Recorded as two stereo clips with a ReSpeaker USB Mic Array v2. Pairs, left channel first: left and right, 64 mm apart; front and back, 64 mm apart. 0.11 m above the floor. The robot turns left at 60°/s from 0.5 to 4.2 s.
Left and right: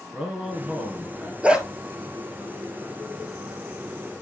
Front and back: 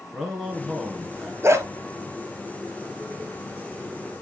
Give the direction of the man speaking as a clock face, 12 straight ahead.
2 o'clock.